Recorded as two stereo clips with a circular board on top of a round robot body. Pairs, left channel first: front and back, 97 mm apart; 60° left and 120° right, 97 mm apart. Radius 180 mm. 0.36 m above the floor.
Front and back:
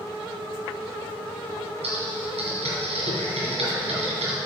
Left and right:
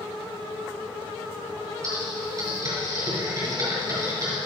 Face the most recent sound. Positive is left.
turn(degrees=180)